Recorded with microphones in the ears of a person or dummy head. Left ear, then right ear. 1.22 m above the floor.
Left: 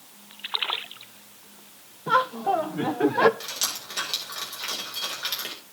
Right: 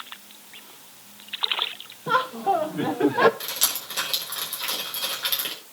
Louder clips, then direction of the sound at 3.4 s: Right 2 dB; centre (ahead or behind).